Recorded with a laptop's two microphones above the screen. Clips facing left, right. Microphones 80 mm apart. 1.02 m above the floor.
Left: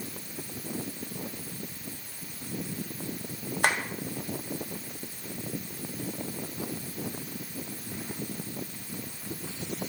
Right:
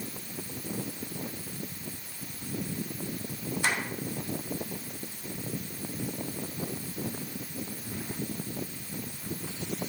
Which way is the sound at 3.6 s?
55° left (ahead or behind).